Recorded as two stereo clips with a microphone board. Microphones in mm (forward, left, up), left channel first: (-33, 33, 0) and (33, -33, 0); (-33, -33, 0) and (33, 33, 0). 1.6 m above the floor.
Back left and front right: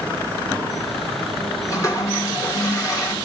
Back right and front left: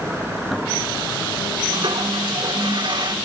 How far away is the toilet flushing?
About 2.0 m.